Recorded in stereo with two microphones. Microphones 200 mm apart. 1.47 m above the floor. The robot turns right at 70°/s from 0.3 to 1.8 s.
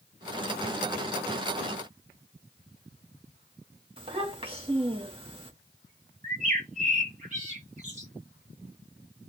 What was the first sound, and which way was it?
A child speaking, 25° right (ahead or behind).